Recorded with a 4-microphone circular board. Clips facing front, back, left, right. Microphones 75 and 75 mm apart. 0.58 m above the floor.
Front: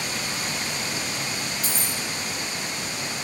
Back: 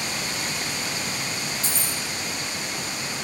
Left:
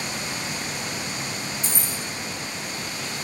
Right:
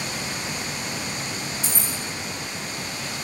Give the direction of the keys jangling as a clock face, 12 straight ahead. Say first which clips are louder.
Even, right 1 dB; 8 o'clock.